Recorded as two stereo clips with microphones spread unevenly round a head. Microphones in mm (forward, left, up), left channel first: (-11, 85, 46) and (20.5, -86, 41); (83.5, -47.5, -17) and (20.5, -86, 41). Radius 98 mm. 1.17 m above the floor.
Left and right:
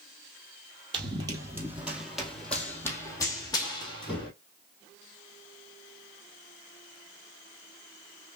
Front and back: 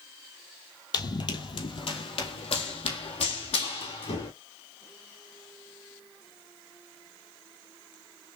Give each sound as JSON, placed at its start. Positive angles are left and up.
{"t": 0.9, "sound": "running footsteps", "azimuth_deg": -25, "distance_m": 1.5}